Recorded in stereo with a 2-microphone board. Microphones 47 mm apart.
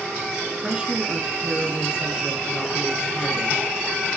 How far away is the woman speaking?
About 3.5 m.